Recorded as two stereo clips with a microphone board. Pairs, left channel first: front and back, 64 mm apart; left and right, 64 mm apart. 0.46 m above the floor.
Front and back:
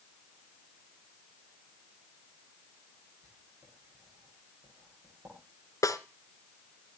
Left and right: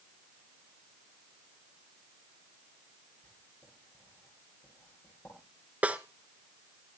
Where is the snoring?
I don't hear snoring.